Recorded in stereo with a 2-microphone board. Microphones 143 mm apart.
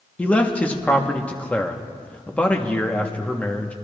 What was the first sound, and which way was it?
A man speaking, 10° left (ahead or behind).